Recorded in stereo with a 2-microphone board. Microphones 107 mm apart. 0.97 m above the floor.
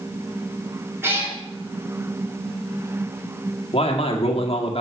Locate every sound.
1.0 s a cat meowing: 25° right (ahead or behind), 3 m
3.7 s a man speaking: 65° left (ahead or behind), 1.6 m